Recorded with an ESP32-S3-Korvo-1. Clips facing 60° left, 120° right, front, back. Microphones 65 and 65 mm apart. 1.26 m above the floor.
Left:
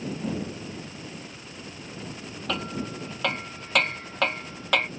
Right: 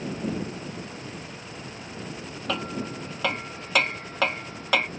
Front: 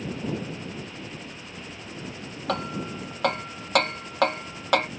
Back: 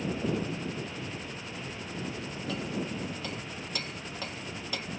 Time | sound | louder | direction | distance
2.5 | hammering | right 1 dB, front 6 dB | 30° right | ?